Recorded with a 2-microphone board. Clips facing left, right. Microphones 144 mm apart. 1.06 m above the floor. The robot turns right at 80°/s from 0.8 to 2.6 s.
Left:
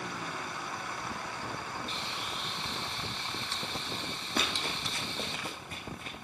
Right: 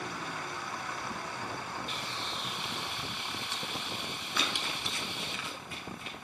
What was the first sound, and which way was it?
Frying, 140° left.